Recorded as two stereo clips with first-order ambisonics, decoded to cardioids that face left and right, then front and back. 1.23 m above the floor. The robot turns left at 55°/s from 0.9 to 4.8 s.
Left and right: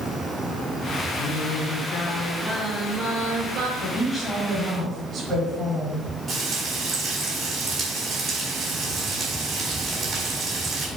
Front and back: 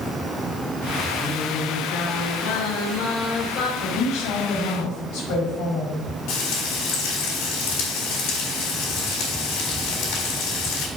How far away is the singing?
About 1.1 m.